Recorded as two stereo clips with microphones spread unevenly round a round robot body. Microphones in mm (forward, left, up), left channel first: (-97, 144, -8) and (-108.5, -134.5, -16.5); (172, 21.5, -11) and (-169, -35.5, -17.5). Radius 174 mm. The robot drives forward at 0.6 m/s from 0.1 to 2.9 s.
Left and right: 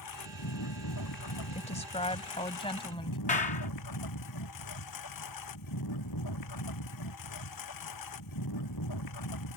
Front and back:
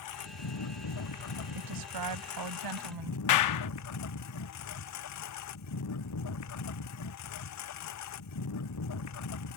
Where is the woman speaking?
155° left; by 3.2 s 160° left.